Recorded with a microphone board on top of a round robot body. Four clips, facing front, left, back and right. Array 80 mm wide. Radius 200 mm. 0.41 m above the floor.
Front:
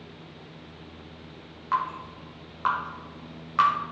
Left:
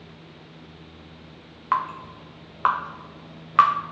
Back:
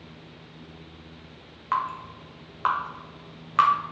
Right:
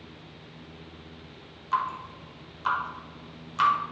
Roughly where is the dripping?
Left.